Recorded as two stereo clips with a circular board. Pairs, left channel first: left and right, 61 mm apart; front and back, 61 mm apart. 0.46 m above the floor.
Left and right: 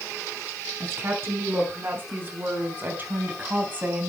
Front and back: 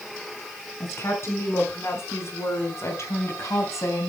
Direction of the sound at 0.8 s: 40° right.